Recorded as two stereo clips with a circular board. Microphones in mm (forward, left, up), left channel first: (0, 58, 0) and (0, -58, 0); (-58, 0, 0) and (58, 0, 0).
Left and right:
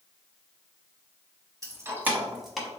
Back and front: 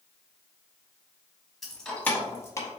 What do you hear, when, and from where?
1.6 s keys jangling: 90° right, 0.8 m; by 2.7 s 175° left, 0.8 m